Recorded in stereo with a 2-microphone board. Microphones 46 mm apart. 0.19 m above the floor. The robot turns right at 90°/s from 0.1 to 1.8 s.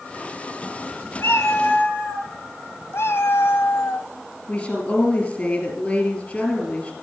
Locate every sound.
1.2 s a cat meowing: 80° left, 2.0 m; by 2.3 s 135° left, 2.0 m
2.9 s a cat meowing: 65° left (ahead or behind), 0.9 m
4.5 s a woman speaking: 25° left (ahead or behind), 3.5 m